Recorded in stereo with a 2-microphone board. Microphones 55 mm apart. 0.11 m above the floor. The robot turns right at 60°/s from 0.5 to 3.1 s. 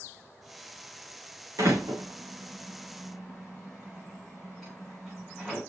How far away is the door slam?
About 7 m.